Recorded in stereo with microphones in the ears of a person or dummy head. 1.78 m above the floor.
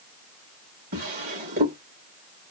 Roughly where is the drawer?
Right.